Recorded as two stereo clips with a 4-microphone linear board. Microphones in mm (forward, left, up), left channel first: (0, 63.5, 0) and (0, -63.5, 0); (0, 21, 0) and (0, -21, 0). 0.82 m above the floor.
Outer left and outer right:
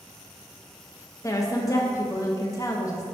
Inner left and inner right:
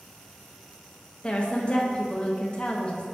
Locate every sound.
1.2 s a woman speaking: 30° left (ahead or behind), 0.6 m